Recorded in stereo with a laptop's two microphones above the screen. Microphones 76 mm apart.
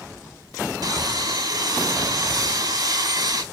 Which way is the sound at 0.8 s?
65° right (ahead or behind).